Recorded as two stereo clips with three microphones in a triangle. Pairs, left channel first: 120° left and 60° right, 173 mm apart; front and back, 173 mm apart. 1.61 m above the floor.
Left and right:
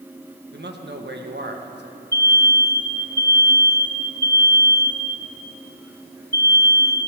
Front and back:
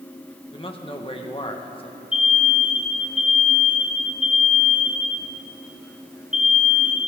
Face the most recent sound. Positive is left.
turn(degrees=95)